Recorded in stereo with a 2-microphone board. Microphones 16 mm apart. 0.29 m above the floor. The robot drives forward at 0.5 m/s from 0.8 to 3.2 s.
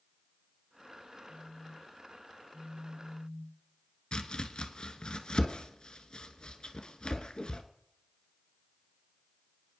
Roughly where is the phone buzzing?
Right.